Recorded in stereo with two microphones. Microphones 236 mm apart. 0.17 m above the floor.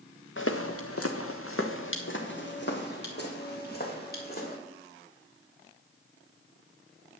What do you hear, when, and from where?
0.4 s footsteps: 60° left (ahead or behind), 1.1 m; by 4.5 s 40° left (ahead or behind), 5 m